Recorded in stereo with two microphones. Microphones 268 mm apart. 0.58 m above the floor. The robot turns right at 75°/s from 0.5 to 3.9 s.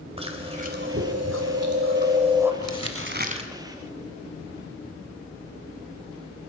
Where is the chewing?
155° right, 2.5 m; by 2.5 s 5° right, 2.5 m.